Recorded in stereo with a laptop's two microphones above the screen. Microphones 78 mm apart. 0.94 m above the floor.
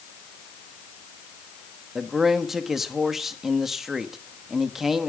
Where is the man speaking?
5° right (ahead or behind), 1.2 m.